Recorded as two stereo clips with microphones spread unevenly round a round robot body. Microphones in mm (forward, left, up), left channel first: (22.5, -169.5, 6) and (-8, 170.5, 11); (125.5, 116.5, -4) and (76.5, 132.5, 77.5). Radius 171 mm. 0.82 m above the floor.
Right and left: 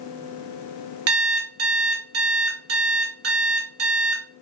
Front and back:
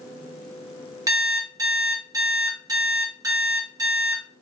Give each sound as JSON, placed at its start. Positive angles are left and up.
{"t": 1.1, "sound": "an alarm clock", "azimuth_deg": 145, "distance_m": 0.7}